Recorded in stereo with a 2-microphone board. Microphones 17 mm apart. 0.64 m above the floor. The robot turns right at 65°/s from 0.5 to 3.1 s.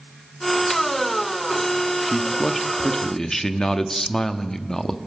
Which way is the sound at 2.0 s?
30° right.